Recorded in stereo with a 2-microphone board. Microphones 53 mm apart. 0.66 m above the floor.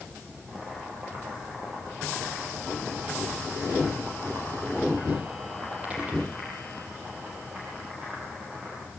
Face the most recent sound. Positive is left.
turn(degrees=-25)  # may be behind; listen again after turning